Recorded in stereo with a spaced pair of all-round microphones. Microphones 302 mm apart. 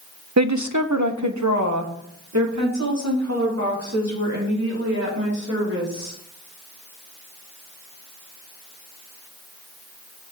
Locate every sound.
0.4 s a woman speaking: 60° right (ahead or behind), 0.5 m; by 6.1 s 55° right (ahead or behind), 5 m